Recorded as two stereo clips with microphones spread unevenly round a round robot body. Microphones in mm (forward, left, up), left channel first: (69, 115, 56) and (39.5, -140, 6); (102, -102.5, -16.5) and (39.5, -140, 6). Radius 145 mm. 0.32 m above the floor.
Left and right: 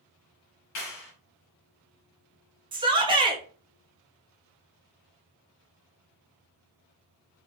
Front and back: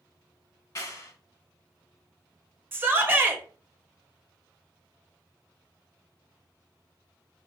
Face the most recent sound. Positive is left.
turn(degrees=-80)